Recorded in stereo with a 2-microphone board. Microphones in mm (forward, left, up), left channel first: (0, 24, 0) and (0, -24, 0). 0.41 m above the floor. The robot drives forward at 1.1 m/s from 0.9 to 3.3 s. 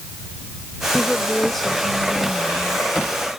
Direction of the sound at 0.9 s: Centre (ahead or behind).